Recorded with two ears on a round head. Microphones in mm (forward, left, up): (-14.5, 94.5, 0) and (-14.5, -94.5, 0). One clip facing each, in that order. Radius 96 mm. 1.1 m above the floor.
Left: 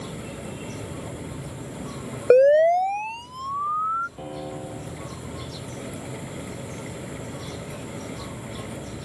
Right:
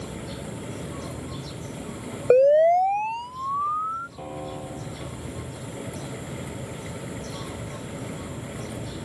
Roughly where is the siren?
Centre.